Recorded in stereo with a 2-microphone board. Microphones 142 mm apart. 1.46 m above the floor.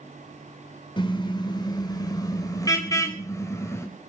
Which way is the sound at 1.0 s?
30° left (ahead or behind).